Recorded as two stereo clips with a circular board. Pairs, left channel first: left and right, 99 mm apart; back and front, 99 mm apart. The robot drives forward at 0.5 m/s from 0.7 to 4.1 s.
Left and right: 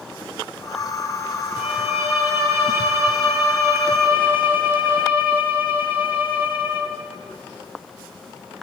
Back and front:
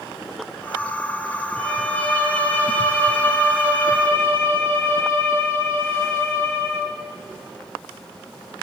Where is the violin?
105° left, 4.5 m; by 7.0 s 115° left, 5 m.